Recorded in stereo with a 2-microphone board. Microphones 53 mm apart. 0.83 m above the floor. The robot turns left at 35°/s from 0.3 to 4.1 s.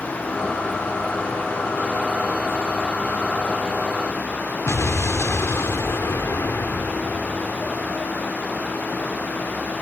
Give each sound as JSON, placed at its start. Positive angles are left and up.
{"t": 4.7, "sound": "an explosion", "side_deg": 60}